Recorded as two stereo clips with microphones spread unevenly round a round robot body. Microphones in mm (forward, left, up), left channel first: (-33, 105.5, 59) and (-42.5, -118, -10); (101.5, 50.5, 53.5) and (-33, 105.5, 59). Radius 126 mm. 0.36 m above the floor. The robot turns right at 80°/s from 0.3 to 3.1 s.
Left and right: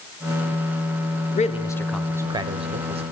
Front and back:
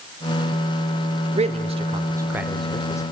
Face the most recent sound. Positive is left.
turn(degrees=-70)